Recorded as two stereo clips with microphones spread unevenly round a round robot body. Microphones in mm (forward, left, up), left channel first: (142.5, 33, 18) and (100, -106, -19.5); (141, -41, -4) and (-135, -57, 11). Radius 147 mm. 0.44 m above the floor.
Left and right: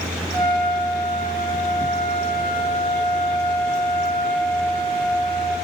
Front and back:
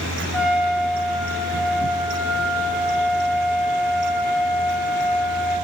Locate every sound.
0.3 s a trumpet: 90° right, 3.5 m